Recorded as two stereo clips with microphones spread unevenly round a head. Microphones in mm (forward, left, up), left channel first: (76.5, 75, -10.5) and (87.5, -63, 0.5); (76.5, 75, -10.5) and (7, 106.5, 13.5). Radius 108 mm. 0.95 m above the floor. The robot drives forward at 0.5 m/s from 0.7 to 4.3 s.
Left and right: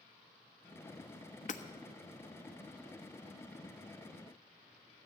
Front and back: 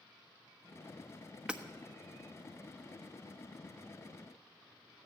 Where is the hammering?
75° left, 1.3 m.